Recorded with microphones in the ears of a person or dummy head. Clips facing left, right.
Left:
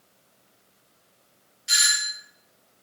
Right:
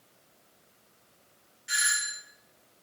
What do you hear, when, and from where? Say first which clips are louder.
1.7 s a doorbell: left 2 dB; 60° left (ahead or behind), 1.2 m